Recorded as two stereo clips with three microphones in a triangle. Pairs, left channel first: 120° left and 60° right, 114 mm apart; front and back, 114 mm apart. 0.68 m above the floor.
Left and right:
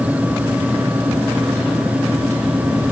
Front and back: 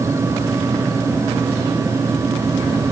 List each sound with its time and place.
Only background noise.